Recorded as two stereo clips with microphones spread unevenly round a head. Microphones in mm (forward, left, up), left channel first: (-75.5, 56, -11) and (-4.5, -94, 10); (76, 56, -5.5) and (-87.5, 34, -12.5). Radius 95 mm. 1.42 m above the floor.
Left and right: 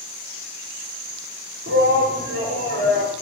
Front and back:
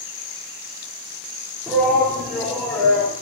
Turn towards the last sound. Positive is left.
turn(degrees=-75)